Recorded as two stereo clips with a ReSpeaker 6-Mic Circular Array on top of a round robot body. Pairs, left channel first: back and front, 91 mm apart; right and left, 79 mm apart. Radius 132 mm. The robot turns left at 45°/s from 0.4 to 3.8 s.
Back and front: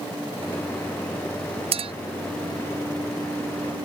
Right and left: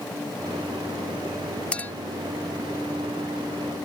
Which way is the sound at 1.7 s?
15° right.